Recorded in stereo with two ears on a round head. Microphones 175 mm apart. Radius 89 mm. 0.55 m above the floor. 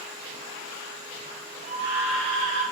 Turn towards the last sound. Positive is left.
turn(degrees=-25)  # may be behind; listen again after turning